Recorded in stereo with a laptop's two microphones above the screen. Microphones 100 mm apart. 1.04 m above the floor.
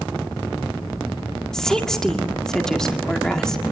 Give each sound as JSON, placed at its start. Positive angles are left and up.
{"t": 1.5, "sound": "a woman speaking", "side_deg": 5, "distance_m": 1.9}